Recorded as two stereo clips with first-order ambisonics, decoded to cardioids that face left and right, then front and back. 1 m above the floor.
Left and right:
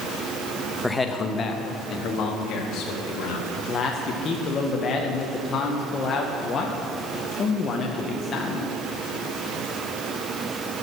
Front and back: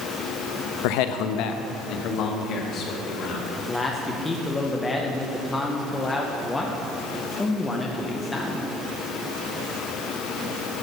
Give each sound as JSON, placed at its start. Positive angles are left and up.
{"t": 0.8, "sound": "a man speaking", "azimuth_deg": 5, "distance_m": 0.6}
{"t": 3.6, "sound": "a man speaking", "azimuth_deg": 65, "distance_m": 0.7}